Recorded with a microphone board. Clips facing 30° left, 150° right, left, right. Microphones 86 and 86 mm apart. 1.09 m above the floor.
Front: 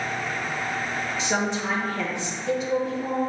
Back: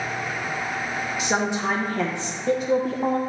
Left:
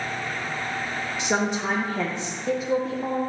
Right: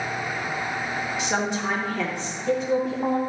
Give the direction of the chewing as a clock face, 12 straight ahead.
I don't hear chewing.